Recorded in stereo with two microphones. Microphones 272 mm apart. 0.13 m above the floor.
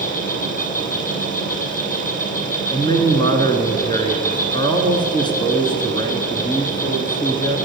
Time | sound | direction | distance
0.0 | an insect | 30° left (ahead or behind) | 2.5 m
2.7 | a man speaking | 15° left (ahead or behind) | 1.4 m